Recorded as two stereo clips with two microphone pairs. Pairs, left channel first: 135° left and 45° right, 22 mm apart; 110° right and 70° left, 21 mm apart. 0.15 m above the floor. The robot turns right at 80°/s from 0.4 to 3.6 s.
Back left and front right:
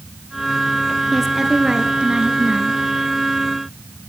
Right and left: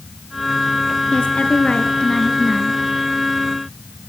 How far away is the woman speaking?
About 2 m.